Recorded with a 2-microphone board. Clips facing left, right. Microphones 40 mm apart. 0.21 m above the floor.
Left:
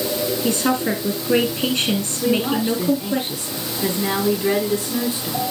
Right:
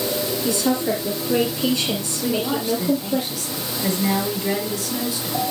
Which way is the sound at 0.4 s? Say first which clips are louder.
Even; 45° left (ahead or behind).